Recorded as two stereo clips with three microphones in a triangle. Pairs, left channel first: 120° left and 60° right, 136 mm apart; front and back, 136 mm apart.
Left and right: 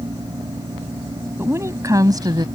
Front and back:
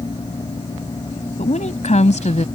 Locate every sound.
1.4 s a woman speaking: 10° left; by 2.5 s 10° right